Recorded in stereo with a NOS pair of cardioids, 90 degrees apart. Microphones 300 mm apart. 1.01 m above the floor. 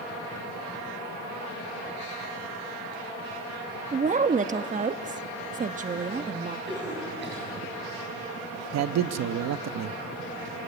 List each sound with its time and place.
3.9 s a woman speaking: 25° right, 1.1 m
6.7 s a cough: 35° right, 8.5 m
8.7 s a man speaking: 60° right, 1.1 m